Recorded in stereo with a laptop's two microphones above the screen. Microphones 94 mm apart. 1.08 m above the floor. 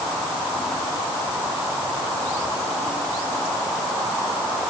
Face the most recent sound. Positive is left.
No sound to turn to.